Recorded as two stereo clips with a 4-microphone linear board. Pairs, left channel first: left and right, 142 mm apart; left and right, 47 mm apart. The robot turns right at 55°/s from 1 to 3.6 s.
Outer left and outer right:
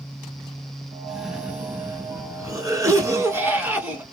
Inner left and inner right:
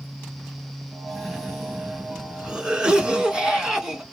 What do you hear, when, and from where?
1.1 s a cough: centre (ahead or behind), 1.1 m; by 4.0 s 15° right (ahead or behind), 1.1 m